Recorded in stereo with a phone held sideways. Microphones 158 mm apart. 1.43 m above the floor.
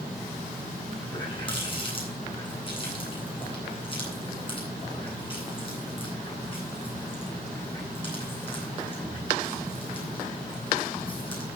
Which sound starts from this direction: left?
A running tap, at 1.1 s.